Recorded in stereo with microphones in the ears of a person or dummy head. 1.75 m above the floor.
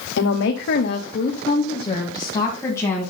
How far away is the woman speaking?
About 1.0 m.